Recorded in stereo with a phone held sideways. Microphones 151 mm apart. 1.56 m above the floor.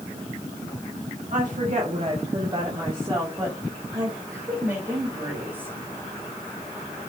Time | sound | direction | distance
1.3 | a woman speaking | 60° right (ahead or behind) | 2 m